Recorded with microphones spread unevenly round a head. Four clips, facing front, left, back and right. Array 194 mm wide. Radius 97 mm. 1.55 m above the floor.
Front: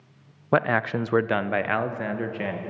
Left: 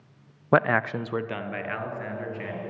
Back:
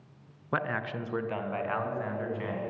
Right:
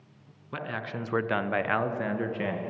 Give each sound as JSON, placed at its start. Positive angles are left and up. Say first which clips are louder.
{"t": 0.5, "sound": "a man speaking", "louder": "left 13 dB, front 10 dB", "azimuth_deg": 55, "distance_m": 0.7}